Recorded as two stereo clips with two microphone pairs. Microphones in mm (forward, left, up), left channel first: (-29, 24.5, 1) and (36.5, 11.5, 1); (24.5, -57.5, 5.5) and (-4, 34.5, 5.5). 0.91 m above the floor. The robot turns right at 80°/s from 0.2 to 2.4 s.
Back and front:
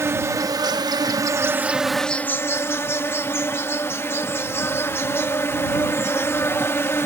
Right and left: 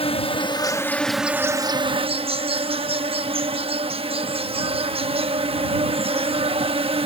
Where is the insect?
60° right; by 7.1 s 115° left.